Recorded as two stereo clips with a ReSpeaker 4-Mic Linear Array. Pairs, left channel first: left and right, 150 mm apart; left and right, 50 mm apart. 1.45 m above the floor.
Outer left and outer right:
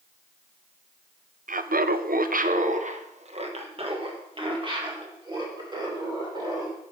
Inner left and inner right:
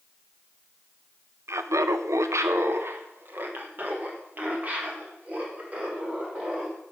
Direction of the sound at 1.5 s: 65° right (ahead or behind).